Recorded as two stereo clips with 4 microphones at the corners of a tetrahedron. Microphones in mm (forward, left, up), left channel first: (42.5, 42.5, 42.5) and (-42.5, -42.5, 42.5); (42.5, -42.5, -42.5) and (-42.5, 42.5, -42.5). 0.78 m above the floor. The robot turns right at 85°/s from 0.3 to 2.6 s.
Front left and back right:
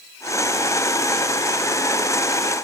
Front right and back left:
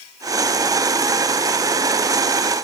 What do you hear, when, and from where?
Only background noise.